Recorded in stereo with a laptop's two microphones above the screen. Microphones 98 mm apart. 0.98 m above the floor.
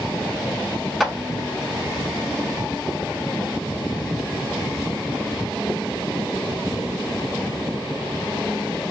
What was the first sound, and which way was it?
A clap, centre (ahead or behind).